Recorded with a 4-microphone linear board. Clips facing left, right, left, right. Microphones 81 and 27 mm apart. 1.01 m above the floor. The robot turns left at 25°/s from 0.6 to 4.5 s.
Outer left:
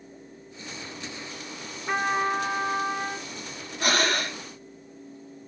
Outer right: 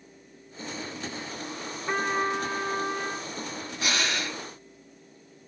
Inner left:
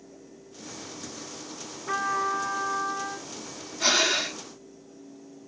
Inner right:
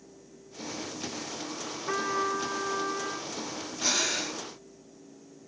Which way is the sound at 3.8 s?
45° left (ahead or behind).